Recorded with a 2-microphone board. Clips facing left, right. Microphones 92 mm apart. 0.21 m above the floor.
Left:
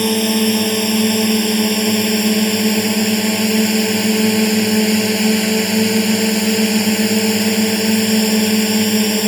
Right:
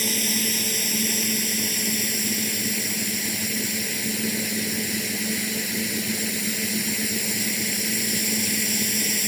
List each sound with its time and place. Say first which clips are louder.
0.0 s a drone: left 13 dB; 60° left (ahead or behind); by 9.3 s 65° left (ahead or behind)